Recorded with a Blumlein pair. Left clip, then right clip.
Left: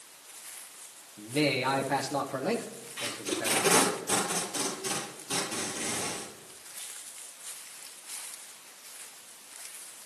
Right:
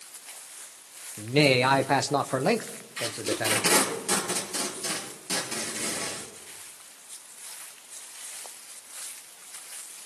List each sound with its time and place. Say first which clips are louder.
1.2 s a man speaking: right 7 dB; 60° right, 1.1 m
3.0 s tape being pulled: right 4 dB; 60° right, 6.5 m